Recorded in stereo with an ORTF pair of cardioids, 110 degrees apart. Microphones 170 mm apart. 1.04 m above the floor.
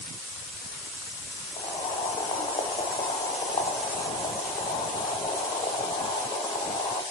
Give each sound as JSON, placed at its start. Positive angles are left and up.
{"t": 1.6, "sound": "boiling", "azimuth_deg": 25, "distance_m": 0.6}